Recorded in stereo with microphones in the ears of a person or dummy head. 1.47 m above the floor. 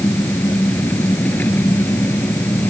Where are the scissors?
I don't hear scissors.